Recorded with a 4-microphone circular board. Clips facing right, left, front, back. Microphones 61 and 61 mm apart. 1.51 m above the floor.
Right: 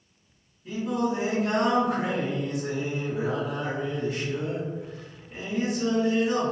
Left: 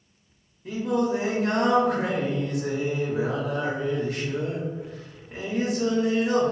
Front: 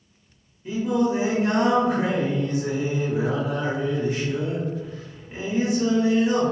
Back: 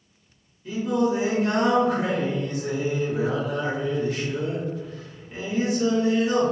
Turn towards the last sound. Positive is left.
turn(degrees=70)